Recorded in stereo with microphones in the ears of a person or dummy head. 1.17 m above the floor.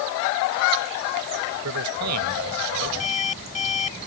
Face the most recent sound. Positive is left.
turn(degrees=35)  # may be behind; listen again after turning